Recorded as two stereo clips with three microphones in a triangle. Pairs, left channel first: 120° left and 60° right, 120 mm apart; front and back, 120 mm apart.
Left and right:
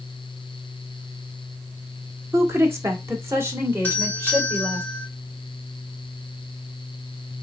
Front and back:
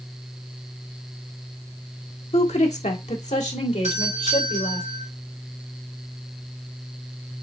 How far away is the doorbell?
About 3 m.